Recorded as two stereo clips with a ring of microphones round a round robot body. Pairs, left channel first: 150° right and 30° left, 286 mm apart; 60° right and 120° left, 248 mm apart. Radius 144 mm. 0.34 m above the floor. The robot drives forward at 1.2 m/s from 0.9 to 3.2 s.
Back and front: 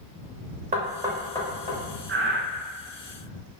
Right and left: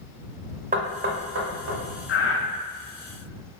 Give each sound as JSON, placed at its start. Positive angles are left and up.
{"t": 0.7, "sound": "knocking", "azimuth_deg": 80, "distance_m": 0.7}
{"t": 2.1, "sound": "breathing", "azimuth_deg": -20, "distance_m": 0.8}